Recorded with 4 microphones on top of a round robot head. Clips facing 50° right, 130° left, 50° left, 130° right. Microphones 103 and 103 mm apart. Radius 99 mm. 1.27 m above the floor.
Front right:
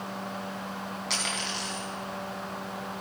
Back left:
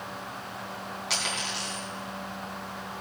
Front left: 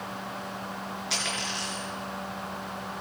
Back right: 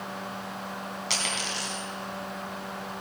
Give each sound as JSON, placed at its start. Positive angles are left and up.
{"t": 1.1, "sound": "a dropped coin", "azimuth_deg": -145, "distance_m": 2.5}